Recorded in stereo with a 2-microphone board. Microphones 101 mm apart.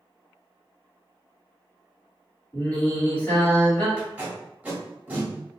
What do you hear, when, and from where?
2.5 s singing: 20° left (ahead or behind), 1.8 m
4.0 s tape being pulled: 15° right (ahead or behind), 1.6 m